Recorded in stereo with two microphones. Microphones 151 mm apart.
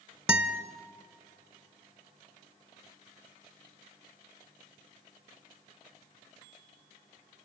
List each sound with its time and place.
0.3 s a guitar: 5° right (ahead or behind), 1.2 m